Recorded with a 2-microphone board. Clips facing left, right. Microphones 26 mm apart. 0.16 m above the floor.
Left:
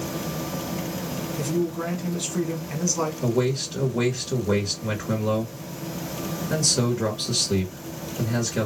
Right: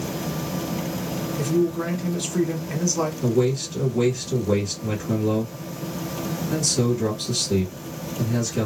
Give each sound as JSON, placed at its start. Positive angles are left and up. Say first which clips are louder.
{"t": 1.4, "sound": "a man speaking", "louder": "right 4 dB", "side_deg": 0, "distance_m": 1.5}
{"t": 3.2, "sound": "a man speaking", "louder": "right 3 dB", "side_deg": 45, "distance_m": 1.9}